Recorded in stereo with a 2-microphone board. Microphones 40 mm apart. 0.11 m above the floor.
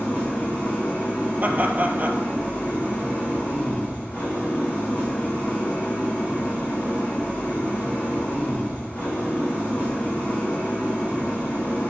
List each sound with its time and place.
0.0 s an engine running: 40° left (ahead or behind), 5.5 m
1.4 s laughter: 40° right (ahead or behind), 2.5 m